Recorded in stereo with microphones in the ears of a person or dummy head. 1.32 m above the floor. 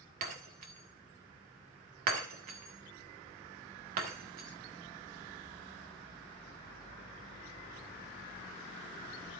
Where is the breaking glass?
55° right (ahead or behind), 1.7 m.